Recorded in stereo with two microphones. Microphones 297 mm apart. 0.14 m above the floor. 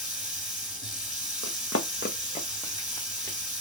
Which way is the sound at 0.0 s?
45° left (ahead or behind).